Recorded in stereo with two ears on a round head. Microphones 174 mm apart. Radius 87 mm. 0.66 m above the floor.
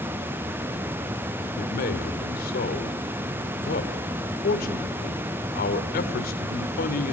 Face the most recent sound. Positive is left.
turn(degrees=50)  # may be behind; listen again after turning